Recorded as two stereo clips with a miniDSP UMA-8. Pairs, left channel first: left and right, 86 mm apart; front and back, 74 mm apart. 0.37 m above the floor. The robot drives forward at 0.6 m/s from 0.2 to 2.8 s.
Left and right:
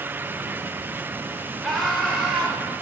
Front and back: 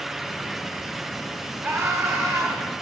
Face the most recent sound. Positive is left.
turn(degrees=180)